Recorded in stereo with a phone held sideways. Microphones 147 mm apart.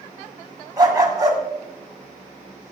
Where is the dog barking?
25° right (ahead or behind), 2 m.